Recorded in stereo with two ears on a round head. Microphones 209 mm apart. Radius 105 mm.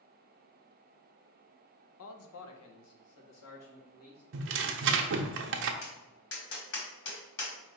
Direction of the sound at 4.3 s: 55° right (ahead or behind).